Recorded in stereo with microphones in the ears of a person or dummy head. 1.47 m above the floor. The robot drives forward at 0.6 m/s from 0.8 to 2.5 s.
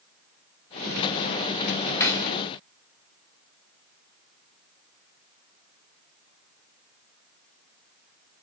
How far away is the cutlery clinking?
About 1.0 m.